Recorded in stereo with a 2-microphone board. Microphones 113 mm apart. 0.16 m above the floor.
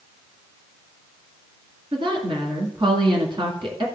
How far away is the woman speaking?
About 1.9 m.